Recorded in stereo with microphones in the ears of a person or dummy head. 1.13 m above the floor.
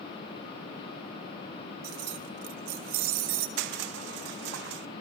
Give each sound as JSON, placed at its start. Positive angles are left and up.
{"t": 1.8, "sound": "keys jangling", "side_deg": -60, "distance_m": 1.2}
{"t": 3.6, "sound": "crushing", "side_deg": -75, "distance_m": 0.9}